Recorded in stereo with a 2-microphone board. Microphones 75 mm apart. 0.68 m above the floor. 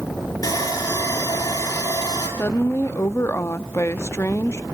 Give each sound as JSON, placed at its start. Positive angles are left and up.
{"t": 0.4, "sound": "sawing", "side_deg": 50, "distance_m": 6.5}
{"t": 2.4, "sound": "a woman speaking", "side_deg": 35, "distance_m": 0.7}